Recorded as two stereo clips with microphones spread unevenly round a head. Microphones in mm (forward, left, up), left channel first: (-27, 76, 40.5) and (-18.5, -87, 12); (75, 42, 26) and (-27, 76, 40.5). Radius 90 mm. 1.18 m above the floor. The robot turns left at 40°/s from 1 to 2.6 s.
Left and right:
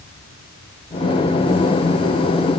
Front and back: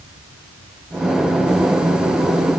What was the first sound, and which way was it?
Only background noise.